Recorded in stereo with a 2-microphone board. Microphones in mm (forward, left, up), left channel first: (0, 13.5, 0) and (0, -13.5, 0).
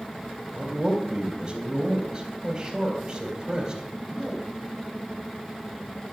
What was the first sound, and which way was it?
A man speaking, 30° right (ahead or behind).